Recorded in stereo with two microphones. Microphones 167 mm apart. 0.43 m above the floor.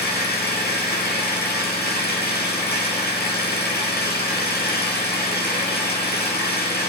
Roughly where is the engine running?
Left.